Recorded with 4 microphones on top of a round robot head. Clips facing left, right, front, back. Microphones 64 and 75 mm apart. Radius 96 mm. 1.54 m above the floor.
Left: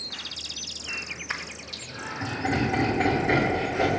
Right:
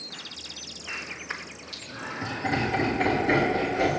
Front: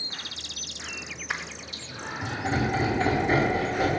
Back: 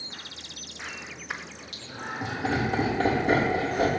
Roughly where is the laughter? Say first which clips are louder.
Even, back 2 dB; behind left.